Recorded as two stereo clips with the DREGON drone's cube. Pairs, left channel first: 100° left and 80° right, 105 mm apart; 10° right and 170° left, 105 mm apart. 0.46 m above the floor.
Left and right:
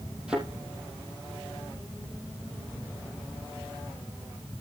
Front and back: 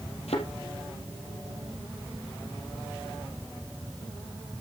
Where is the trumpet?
I don't hear a trumpet.